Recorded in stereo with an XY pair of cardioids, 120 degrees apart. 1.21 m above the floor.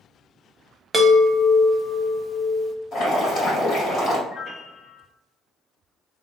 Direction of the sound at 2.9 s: 45° left.